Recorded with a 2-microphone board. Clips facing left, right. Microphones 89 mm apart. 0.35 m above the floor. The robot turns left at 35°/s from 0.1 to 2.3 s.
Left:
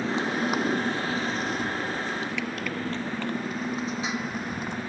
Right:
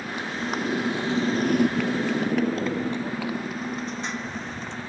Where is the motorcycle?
25° left (ahead or behind); by 4.9 s 15° left (ahead or behind).